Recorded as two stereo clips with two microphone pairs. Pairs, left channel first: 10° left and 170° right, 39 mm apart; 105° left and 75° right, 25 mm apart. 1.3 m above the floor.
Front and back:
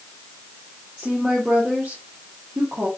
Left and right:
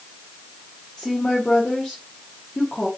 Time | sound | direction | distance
1.0 | a woman speaking | 140° left | 1.5 m